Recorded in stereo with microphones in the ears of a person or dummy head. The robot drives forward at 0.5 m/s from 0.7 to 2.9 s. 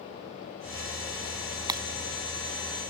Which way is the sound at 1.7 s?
20° right (ahead or behind).